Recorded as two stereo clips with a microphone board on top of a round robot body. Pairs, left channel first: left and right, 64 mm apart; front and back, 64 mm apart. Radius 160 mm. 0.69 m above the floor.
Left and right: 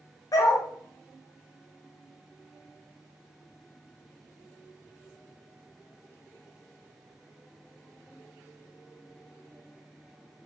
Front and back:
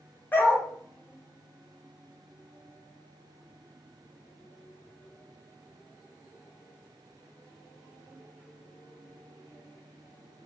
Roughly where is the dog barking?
Ahead left.